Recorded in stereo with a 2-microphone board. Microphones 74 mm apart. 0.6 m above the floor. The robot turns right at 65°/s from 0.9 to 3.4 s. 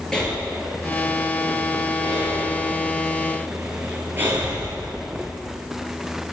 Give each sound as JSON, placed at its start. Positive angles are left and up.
{"t": 0.1, "sound": "breathing", "side_deg": 10, "distance_m": 8.5}